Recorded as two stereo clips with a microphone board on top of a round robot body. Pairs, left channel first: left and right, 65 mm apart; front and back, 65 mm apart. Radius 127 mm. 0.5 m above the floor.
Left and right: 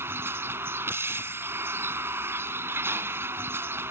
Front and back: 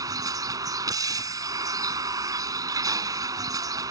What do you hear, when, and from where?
0.0 s a vehicle: 150° right